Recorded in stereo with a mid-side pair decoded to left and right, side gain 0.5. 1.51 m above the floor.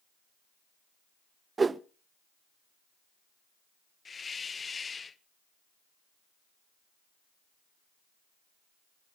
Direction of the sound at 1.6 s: 25° right.